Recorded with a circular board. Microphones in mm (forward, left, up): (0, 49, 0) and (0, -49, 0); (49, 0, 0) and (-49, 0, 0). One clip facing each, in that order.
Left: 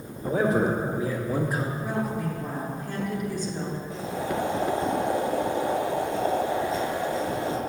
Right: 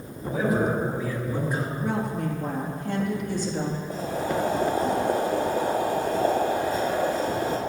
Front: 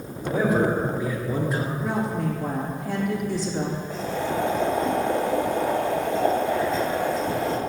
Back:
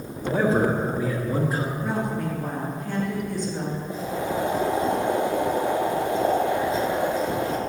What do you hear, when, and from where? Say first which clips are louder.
0.2 s a man speaking: left 1 dB, even; 130° left, 2.5 m; by 1.7 s 175° left, 1.8 m
1.8 s a woman speaking: right 1 dB, front 1 dB; 90° right, 3 m
3.9 s boiling: right 2 dB, back 1 dB; 110° right, 1.6 m